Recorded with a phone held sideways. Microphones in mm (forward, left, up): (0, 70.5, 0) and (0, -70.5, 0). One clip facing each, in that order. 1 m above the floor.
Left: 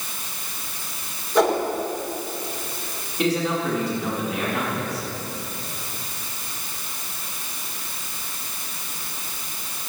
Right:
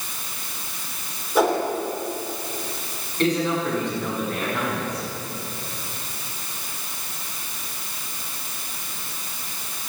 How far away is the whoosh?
About 3.5 m.